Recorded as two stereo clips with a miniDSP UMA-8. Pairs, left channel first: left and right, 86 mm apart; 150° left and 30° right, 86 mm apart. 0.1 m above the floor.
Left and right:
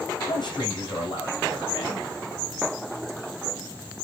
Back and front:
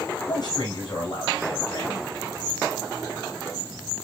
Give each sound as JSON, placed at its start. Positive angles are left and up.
{"t": 0.3, "sound": "a man speaking", "azimuth_deg": 120, "distance_m": 6.5}